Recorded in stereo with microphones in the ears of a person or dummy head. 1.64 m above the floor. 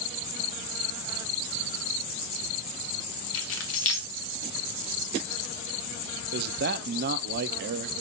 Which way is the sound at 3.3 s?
65° left (ahead or behind).